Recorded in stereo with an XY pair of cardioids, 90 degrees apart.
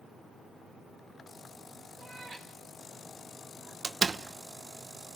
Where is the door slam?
45° right, 1.1 m.